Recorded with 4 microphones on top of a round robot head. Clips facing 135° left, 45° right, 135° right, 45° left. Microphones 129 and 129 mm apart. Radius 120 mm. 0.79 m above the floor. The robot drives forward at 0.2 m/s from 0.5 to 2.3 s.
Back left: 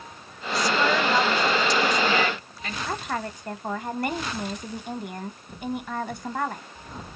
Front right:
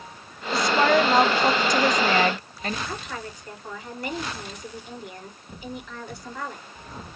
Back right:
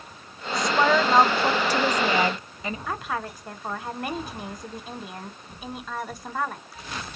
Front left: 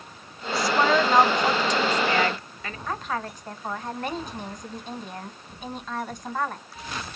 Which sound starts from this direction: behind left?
A woman speaking, at 2.9 s.